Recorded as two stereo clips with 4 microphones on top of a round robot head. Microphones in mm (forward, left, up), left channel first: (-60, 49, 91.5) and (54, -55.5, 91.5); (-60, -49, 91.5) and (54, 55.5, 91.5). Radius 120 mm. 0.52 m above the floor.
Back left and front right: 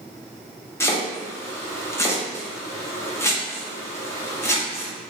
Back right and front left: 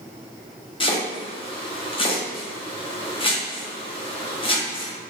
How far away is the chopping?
About 1.2 m.